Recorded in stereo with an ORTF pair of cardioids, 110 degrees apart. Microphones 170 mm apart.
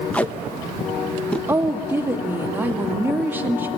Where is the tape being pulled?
10° left, 1.0 m.